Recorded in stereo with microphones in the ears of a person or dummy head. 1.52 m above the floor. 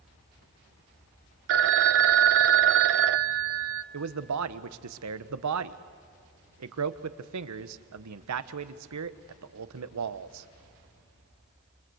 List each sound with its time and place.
1.5 s a phone ringing: 65° right (ahead or behind), 0.8 m
3.9 s a man speaking: 85° right, 1.1 m